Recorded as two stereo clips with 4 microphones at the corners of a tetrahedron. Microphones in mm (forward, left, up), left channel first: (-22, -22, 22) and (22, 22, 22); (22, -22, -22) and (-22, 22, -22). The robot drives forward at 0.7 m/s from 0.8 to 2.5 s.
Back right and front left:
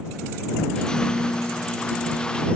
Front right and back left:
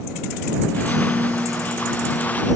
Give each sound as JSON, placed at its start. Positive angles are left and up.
{"t": 0.9, "sound": "a piano", "azimuth_deg": 145}